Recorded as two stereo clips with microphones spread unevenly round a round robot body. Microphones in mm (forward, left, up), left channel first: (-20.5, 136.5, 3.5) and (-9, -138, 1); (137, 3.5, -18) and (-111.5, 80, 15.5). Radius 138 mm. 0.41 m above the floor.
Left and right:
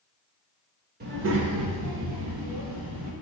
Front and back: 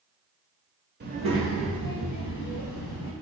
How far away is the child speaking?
About 0.7 m.